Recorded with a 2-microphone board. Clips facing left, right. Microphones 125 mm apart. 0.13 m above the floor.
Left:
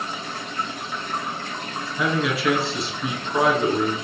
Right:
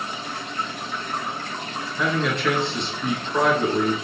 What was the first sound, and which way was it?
A man speaking, 5° left (ahead or behind).